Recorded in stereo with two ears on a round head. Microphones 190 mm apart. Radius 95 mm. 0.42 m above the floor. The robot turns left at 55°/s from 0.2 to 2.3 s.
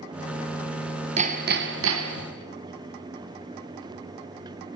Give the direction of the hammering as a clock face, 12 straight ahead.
1 o'clock.